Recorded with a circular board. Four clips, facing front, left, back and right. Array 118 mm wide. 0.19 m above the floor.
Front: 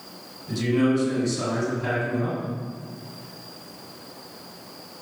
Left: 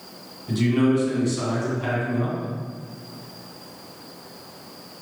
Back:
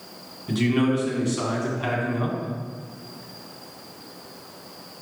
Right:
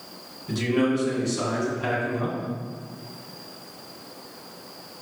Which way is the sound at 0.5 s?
175° right.